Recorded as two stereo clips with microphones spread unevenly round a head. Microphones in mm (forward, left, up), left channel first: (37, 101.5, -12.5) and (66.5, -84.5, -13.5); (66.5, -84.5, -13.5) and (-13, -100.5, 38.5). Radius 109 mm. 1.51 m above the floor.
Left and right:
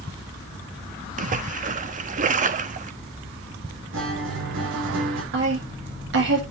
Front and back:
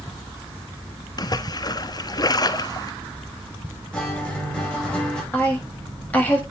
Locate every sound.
1.2 s a splash: 50° right, 1.2 m
3.9 s a guitar: 70° right, 7.5 m
5.3 s a woman speaking: 60° right, 7 m